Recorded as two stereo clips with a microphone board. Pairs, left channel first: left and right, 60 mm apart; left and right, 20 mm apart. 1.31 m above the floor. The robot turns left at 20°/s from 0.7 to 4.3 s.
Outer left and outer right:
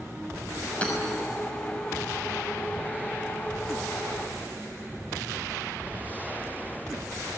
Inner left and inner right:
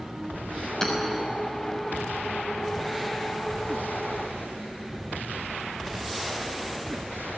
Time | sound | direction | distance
0.8 | hammering | 20° left (ahead or behind) | 5.5 m